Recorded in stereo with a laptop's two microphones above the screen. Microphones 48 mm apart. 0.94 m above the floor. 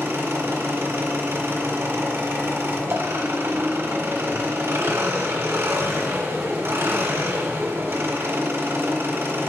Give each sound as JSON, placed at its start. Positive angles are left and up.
{"t": 0.0, "sound": "an engine running", "side_deg": -55, "distance_m": 1.0}